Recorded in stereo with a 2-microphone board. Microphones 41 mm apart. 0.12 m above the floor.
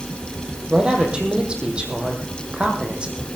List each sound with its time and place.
0.7 s a man speaking: 25° right (ahead or behind), 4 m